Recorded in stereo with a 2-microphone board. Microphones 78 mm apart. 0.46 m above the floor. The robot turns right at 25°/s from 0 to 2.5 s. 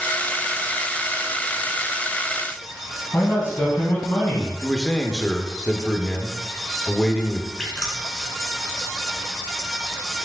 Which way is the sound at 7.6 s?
10° left (ahead or behind).